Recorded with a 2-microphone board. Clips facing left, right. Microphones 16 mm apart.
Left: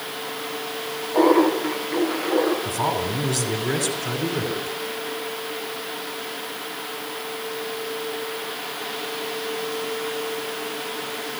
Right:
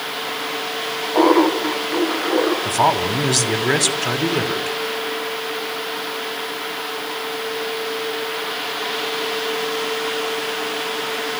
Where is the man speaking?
50° right (ahead or behind), 2.5 m.